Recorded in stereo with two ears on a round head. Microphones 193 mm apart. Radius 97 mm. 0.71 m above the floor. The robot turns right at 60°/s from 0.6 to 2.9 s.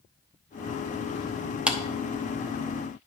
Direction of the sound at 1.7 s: 5° right (ahead or behind).